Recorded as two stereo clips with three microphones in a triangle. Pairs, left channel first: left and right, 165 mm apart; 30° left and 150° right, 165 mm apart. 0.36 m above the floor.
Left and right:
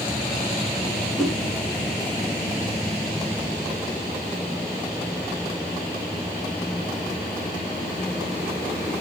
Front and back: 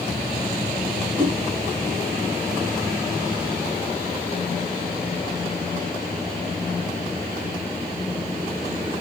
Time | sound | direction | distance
1.2 | a whoosh | straight behind | 2.5 m